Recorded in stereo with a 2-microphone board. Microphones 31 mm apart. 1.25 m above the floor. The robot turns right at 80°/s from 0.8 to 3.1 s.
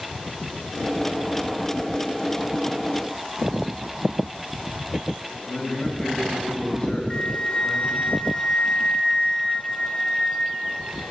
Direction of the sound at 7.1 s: 35° left (ahead or behind).